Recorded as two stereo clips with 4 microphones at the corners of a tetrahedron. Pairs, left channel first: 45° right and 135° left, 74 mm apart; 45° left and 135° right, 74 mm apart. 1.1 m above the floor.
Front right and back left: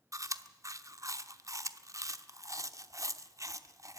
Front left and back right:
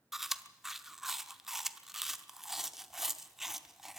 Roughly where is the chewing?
Behind left.